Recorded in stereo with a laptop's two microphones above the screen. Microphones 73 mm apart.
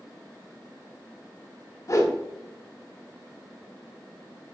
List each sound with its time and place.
1.9 s a whoosh: 40° left (ahead or behind), 0.9 m